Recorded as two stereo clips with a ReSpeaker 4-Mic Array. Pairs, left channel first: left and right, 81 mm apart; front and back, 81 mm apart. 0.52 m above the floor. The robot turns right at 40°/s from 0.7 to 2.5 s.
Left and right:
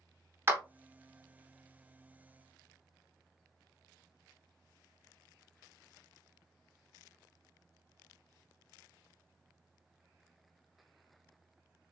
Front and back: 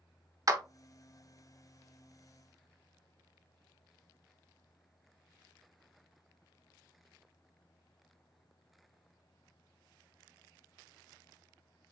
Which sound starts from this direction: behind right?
A clap, at 0.5 s.